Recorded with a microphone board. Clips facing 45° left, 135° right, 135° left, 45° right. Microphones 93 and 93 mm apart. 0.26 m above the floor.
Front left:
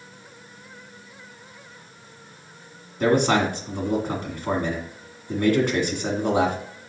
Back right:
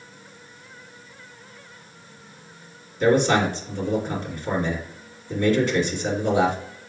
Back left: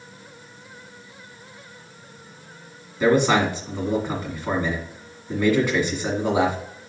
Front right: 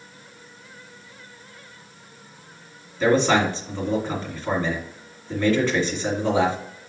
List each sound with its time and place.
3.0 s a man speaking: 60° left, 1.9 m